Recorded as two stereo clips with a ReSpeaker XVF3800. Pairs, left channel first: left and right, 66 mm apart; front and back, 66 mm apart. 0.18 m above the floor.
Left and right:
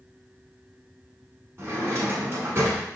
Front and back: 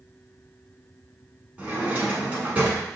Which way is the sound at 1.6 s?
115° right.